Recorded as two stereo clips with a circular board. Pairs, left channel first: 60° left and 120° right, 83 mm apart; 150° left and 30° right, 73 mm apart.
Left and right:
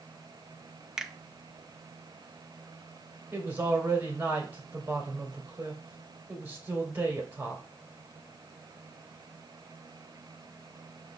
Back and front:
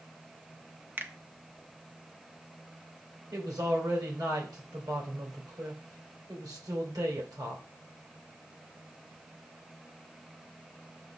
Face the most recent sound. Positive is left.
turn(degrees=-55)